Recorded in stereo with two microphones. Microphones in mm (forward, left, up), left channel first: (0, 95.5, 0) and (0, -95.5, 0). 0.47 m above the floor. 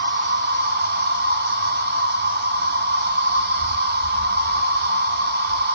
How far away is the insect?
About 2.5 m.